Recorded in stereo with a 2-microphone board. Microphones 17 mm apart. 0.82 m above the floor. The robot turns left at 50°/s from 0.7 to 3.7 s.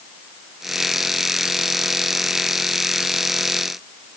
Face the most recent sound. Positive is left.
No sound to turn to.